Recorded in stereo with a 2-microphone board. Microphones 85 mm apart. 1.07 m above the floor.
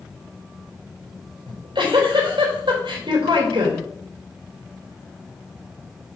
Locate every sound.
1.5 s a giggle: 70° right (ahead or behind), 3.5 m